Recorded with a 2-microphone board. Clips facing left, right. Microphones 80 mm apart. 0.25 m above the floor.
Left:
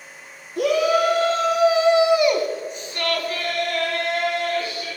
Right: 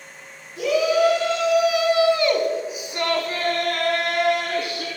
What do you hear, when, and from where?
0.6 s a shout: 50° left (ahead or behind), 3.5 m; by 4.9 s 65° right (ahead or behind), 3.5 m